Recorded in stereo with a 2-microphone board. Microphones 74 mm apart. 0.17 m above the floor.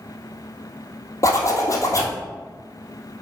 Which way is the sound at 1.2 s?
40° left (ahead or behind).